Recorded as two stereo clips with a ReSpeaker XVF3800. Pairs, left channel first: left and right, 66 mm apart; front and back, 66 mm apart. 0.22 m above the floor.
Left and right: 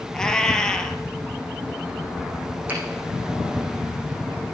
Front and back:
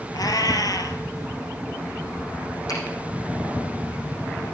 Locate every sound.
0.1 s a cat meowing: 10° left, 1.2 m
2.7 s a finger snap: 20° right, 7.5 m